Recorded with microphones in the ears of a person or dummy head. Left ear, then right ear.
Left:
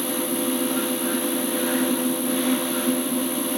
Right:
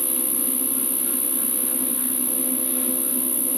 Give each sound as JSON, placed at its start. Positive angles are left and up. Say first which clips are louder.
{"t": 0.0, "sound": "an insect", "louder": "left 5 dB", "side_deg": -40, "distance_m": 1.2}